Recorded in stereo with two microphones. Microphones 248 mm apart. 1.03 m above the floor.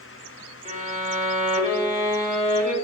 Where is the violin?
30° right (ahead or behind), 0.9 m.